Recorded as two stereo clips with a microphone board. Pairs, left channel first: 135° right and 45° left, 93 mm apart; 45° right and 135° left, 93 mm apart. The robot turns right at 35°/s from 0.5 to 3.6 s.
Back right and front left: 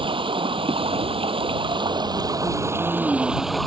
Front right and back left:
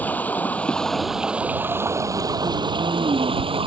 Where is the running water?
25° left; by 3.7 s 135° left.